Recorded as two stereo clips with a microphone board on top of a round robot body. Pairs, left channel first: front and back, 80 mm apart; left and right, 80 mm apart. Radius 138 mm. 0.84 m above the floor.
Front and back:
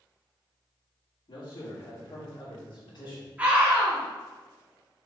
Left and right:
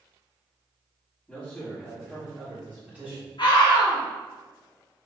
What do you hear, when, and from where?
1.3 s a man speaking: 5° left, 2.5 m; by 3.3 s 20° right, 3 m
3.4 s a scream: 110° left, 2.5 m